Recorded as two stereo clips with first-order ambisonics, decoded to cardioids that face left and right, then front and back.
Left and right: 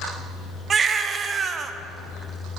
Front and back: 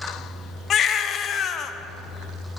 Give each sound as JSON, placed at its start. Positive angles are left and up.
{"t": 0.7, "sound": "a baby crying", "azimuth_deg": -35, "distance_m": 0.6}